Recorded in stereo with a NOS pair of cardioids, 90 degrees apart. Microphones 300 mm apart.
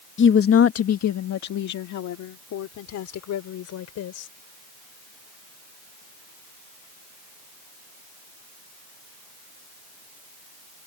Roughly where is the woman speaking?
Ahead left.